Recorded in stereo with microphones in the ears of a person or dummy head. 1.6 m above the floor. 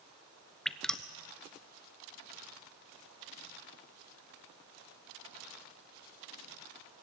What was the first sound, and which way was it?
Dripping, 10° left (ahead or behind).